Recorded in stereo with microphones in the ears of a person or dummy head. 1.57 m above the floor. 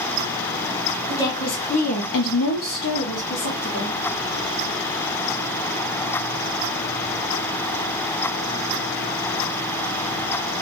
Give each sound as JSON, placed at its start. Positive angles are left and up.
{"t": 1.1, "sound": "a woman speaking", "side_deg": 15, "distance_m": 0.9}